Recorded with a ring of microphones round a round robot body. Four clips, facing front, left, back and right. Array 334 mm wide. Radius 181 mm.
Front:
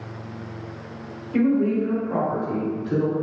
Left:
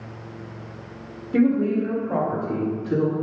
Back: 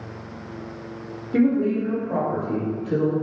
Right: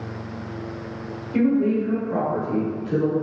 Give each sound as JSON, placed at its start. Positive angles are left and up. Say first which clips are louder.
{"t": 1.3, "sound": "a woman speaking", "louder": "even, even", "azimuth_deg": 135, "distance_m": 1.9}